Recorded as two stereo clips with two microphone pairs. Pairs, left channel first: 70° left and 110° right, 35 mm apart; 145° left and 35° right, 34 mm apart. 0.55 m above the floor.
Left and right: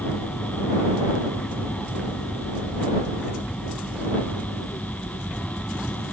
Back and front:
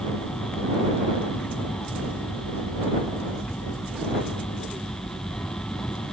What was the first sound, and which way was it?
An aircraft, 115° left.